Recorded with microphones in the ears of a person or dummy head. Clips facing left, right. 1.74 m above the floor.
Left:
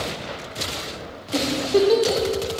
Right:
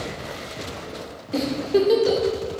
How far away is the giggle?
About 2 m.